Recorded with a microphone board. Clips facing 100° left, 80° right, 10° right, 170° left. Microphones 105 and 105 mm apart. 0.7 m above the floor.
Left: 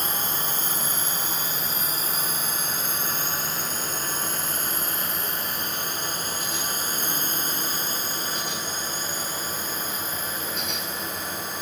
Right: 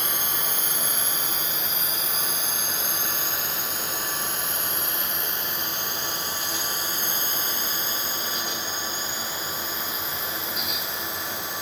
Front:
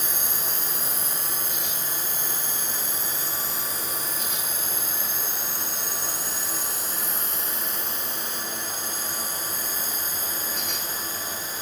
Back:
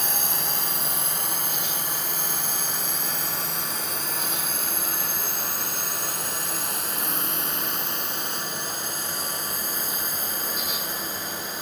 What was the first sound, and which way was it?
A drone, 155° left.